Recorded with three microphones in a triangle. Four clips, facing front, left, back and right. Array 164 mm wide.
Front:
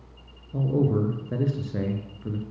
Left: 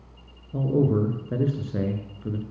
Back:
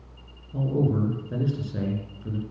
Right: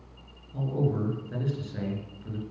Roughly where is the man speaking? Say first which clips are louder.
Left 7 dB, front 1 dB; left.